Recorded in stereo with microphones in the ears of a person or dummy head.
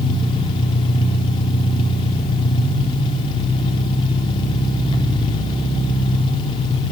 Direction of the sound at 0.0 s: 25° left (ahead or behind).